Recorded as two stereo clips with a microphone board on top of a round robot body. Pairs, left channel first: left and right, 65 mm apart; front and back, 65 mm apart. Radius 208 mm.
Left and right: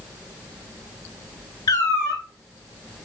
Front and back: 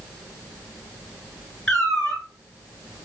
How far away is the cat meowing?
About 0.8 m.